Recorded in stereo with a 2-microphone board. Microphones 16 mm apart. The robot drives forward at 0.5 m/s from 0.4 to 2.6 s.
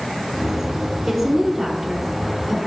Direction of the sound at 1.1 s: 5° right (ahead or behind).